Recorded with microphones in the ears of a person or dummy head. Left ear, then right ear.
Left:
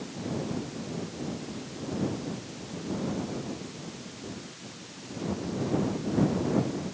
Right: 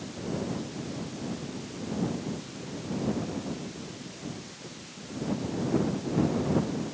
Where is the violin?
I don't hear a violin.